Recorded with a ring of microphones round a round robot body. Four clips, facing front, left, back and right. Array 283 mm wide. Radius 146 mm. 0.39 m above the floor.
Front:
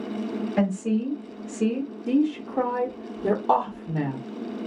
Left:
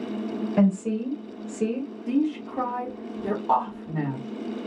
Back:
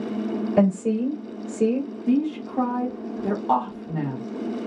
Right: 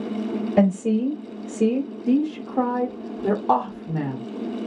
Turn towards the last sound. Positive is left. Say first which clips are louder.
# right 2 dB, even
turn(degrees=-60)